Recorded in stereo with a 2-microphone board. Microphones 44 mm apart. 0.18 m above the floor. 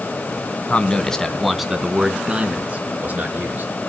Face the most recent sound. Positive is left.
turn(degrees=-40)  # may be behind; listen again after turning